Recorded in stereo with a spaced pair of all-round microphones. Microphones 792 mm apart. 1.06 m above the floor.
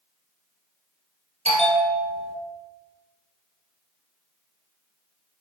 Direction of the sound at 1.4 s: 10° right (ahead or behind).